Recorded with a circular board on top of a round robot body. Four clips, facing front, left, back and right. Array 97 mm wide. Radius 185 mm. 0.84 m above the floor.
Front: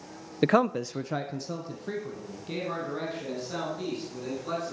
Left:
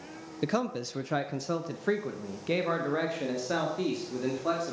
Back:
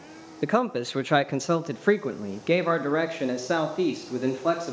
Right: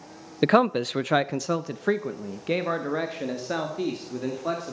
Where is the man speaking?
70° right, 0.6 m; by 4.7 s 170° right, 2.5 m.